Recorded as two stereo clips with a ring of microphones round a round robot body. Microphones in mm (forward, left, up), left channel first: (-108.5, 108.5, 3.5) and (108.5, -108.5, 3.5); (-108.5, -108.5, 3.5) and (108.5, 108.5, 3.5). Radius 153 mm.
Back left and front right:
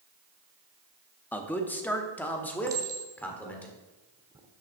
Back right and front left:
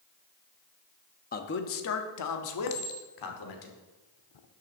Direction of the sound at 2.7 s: 125° right.